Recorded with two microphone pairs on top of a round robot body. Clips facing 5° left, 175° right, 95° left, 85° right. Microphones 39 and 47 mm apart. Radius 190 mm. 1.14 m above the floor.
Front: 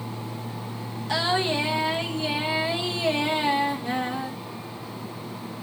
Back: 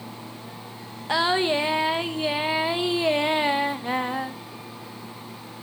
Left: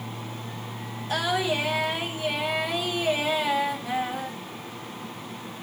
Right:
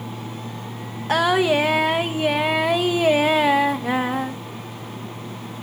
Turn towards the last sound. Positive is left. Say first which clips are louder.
# back 3 dB, right 8 dB
turn(degrees=-110)